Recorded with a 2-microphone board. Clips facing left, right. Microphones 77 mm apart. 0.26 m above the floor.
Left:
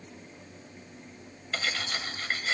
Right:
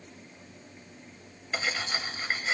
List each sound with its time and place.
1.5 s cutlery clinking: 10° right (ahead or behind), 0.6 m